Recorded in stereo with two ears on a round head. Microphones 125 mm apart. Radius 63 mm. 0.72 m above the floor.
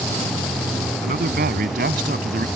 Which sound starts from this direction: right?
A man speaking, at 1.0 s.